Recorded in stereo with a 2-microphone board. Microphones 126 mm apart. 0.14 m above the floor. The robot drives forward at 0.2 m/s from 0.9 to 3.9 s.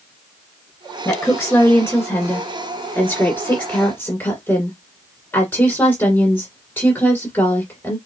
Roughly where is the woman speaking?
Left.